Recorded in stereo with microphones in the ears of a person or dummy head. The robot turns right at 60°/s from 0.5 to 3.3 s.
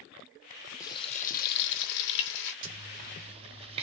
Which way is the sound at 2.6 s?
70° right (ahead or behind).